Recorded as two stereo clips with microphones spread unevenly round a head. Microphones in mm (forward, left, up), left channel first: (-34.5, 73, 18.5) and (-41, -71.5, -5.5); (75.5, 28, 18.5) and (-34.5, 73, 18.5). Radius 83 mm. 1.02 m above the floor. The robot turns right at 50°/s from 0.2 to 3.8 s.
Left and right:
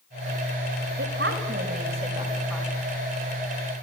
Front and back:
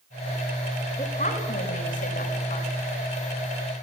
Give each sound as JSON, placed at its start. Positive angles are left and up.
{"t": 1.0, "sound": "a woman speaking", "azimuth_deg": -85, "distance_m": 6.0}